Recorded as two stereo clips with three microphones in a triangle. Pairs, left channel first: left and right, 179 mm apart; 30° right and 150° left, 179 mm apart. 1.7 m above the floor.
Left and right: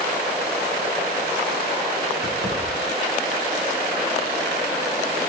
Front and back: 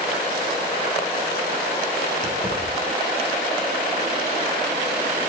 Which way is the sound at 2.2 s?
80° right.